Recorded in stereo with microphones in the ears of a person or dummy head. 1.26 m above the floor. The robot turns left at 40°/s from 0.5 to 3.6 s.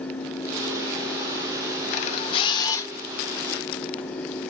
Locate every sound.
1.9 s a camera shutter: 55° left, 0.8 m; by 2.9 s 15° left, 0.8 m